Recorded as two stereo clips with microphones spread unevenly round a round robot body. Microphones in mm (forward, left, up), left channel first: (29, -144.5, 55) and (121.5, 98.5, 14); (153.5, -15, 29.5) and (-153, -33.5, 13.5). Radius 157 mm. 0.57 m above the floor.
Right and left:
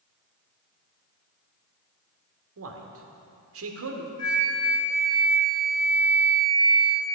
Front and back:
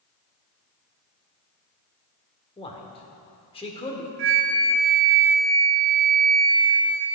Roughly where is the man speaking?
Left.